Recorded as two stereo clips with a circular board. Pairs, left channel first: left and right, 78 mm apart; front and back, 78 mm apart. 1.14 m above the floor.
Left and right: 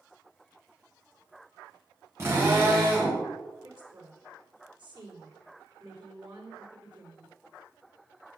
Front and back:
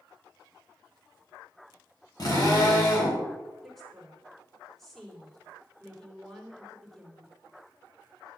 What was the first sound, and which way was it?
A drill, 35° right.